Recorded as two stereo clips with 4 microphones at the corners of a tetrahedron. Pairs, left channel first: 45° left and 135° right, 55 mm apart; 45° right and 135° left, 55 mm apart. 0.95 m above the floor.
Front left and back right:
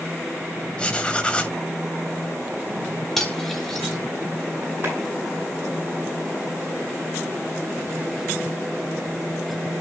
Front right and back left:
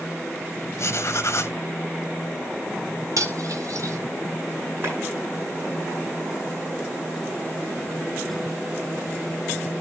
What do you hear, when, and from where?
0.8 s writing: 25° right, 1.4 m
3.2 s cutlery clinking: 135° left, 3.5 m
4.8 s a clap: straight behind, 9.5 m